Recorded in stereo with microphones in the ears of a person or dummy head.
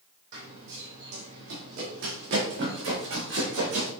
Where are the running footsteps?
60° right (ahead or behind), 3.5 m; by 3.9 s 70° right (ahead or behind), 4.5 m.